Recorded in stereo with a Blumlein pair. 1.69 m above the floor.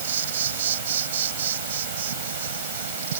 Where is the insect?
60° right.